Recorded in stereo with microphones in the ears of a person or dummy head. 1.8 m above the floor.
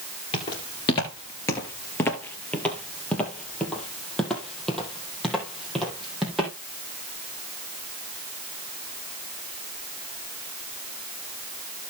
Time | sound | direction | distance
0.3 | footsteps | 20° left (ahead or behind) | 1.8 m